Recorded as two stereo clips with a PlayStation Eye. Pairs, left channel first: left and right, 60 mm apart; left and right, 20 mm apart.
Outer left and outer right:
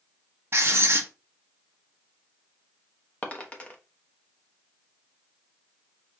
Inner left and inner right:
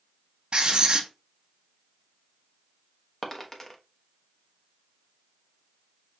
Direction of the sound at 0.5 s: 50° right (ahead or behind).